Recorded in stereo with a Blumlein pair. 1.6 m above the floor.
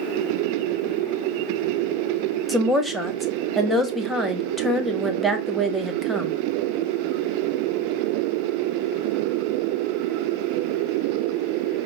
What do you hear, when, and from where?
2.5 s a woman speaking: straight ahead, 0.9 m